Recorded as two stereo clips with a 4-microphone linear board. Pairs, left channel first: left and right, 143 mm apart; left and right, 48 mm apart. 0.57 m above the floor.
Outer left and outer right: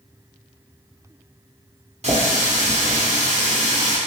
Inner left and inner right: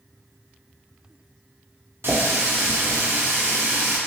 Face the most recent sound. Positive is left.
turn(degrees=-55)  # may be behind; listen again after turning